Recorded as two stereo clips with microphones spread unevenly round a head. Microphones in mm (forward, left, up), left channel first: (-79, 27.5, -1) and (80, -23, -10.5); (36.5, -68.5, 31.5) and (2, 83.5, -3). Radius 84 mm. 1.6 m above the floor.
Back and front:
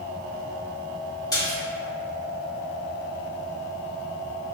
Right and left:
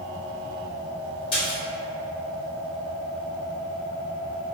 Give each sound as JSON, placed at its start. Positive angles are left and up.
{"t": 1.3, "sound": "a splash", "azimuth_deg": -130, "distance_m": 1.9}